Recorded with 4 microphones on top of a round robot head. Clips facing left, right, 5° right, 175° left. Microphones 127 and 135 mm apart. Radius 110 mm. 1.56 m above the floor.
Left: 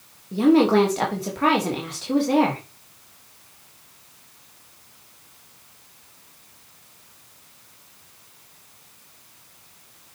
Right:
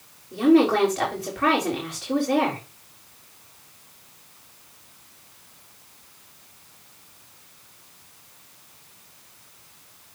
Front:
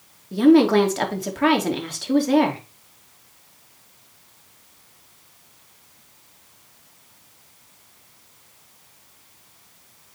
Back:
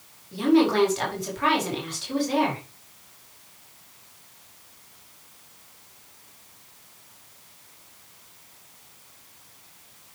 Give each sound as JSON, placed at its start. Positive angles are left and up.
{"t": 0.3, "sound": "a woman speaking", "azimuth_deg": 25, "distance_m": 2.5}